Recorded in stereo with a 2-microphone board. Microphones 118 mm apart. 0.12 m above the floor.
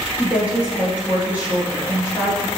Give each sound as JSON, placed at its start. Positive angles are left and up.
{"t": 0.2, "sound": "a woman speaking", "side_deg": -10, "distance_m": 2.5}